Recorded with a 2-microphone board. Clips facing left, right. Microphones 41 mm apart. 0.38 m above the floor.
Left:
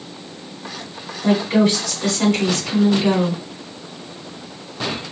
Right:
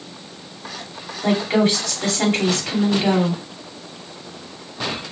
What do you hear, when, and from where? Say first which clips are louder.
1.2 s a woman speaking: left 2 dB; 40° right (ahead or behind), 2.5 m